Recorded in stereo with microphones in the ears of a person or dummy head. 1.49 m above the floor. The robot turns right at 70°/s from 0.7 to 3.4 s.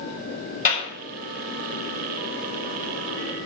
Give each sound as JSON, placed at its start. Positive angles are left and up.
{"t": 0.7, "sound": "a clap", "side_deg": 45, "distance_m": 6.0}